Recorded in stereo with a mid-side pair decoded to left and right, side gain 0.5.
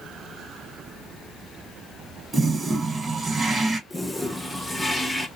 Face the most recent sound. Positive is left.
turn(degrees=5)